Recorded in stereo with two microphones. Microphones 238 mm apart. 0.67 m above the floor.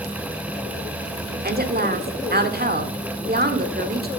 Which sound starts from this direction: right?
A woman speaking, at 1.4 s.